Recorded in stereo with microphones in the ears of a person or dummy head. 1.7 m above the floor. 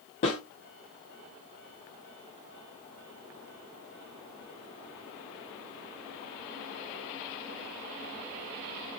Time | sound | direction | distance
0.2 | a snare drum | 35° left (ahead or behind) | 1.4 m